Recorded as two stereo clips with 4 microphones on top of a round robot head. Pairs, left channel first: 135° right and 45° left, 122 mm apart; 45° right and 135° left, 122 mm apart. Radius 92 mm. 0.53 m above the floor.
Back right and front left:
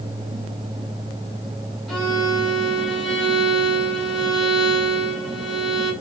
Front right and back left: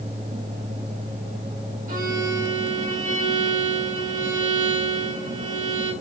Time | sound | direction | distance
1.9 | a violin | 140° left | 7 m